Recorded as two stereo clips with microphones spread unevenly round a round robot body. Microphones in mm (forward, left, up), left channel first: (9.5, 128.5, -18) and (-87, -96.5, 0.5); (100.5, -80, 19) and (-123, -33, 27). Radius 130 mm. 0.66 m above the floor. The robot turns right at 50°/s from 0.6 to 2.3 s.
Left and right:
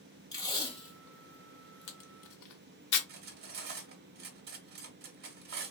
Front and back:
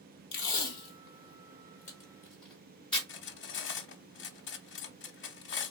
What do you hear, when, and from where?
0.3 s tape being pulled: 10° right, 0.9 m; by 3.0 s 75° left, 0.9 m
3.1 s cutlery clinking: 55° right, 0.5 m